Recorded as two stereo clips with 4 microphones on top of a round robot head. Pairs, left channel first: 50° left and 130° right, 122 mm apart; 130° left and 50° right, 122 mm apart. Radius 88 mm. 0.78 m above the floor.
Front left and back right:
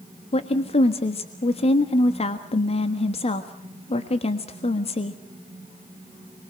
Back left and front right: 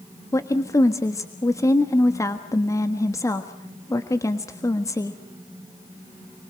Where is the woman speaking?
70° left, 1.5 m.